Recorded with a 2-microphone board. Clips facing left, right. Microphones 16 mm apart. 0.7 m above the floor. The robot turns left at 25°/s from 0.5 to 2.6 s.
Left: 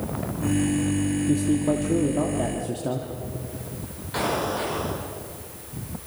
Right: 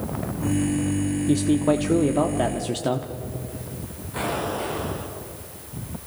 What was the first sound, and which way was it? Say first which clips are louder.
A man speaking: right 4 dB; 65° right.